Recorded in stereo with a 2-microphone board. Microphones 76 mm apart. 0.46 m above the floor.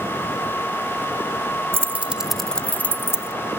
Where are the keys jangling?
30° right (ahead or behind); by 3.3 s 40° left (ahead or behind).